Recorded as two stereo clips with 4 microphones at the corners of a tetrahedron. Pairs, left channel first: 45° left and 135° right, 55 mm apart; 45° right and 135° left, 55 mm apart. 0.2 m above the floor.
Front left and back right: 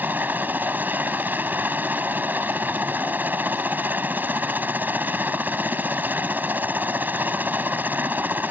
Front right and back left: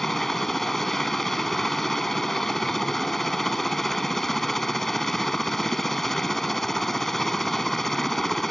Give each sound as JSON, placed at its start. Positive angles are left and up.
{"t": 0.0, "sound": "a helicopter", "azimuth_deg": -125}